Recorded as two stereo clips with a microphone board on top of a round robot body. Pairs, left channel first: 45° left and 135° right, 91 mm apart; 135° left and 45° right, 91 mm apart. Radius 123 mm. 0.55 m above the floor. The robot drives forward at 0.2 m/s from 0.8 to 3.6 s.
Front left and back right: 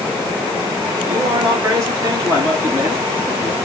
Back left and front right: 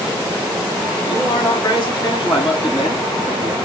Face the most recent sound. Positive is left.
turn(degrees=170)